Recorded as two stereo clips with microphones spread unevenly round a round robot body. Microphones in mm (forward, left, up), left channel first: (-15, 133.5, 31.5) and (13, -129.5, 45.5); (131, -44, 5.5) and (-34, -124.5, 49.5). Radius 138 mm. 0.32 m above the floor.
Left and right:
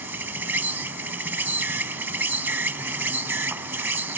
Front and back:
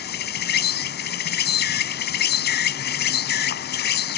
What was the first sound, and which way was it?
An insect, straight ahead.